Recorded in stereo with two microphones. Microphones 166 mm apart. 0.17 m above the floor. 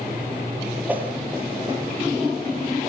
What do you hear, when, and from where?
0.9 s a whoosh: 10° right (ahead or behind), 4.5 m